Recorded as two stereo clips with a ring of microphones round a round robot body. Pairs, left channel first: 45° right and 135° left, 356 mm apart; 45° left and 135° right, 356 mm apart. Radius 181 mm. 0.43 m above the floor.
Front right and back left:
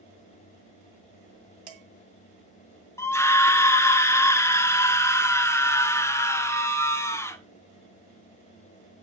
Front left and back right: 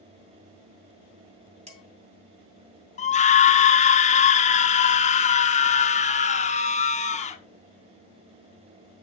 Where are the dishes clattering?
155° left, 2.5 m.